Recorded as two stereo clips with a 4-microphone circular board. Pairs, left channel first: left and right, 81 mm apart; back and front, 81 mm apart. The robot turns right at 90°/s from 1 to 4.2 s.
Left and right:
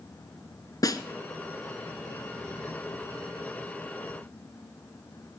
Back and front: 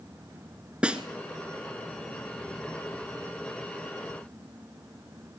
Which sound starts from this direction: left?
A snare drum, at 0.8 s.